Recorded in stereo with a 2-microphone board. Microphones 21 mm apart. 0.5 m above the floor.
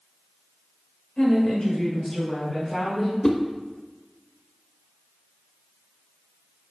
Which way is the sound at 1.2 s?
55° left (ahead or behind).